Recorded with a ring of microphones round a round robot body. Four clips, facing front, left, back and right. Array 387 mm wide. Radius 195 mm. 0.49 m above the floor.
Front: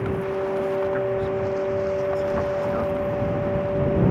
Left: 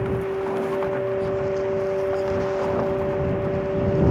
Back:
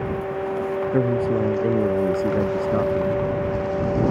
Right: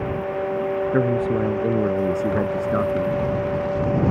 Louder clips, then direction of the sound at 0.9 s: Right 3 dB, back 3 dB; 135° right.